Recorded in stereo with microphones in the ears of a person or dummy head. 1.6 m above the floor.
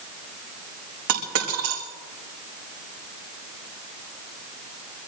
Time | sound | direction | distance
1.1 | a dropped coin | 70° right (ahead or behind) | 5.5 m